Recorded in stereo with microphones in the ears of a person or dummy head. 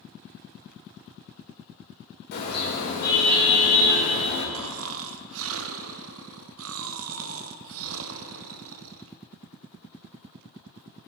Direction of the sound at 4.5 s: 65° right (ahead or behind).